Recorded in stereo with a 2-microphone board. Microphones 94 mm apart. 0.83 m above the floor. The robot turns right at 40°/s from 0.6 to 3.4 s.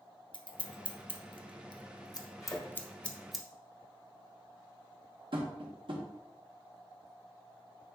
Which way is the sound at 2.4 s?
30° left (ahead or behind).